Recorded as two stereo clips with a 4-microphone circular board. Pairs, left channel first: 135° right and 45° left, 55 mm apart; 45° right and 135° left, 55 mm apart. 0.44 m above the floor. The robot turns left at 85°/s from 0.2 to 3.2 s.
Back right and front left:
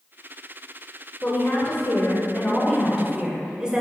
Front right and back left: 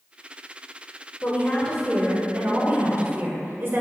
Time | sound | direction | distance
1.2 | a woman speaking | 75° right | 1.9 m